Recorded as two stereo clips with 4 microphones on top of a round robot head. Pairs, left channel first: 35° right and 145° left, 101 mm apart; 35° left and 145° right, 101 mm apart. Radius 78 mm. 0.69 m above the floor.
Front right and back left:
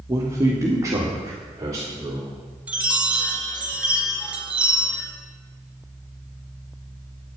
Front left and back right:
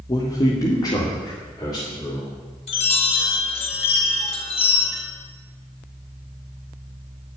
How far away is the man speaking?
About 1.3 m.